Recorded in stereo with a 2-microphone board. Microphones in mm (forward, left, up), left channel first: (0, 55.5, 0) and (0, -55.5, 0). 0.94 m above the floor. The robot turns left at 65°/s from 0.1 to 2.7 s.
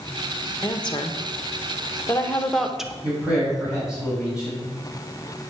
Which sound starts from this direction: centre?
A man speaking, at 3.0 s.